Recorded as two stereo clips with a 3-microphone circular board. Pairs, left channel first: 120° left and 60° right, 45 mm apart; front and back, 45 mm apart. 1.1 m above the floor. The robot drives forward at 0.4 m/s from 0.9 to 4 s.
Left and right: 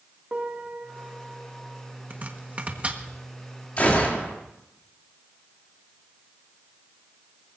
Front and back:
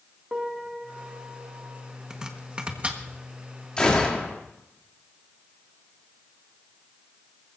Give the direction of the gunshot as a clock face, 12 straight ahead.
10 o'clock.